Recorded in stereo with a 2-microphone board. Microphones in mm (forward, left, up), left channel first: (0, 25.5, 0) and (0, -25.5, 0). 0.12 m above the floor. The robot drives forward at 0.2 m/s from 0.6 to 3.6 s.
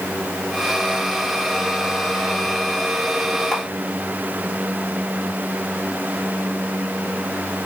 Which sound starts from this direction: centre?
A camera shutter, at 3.5 s.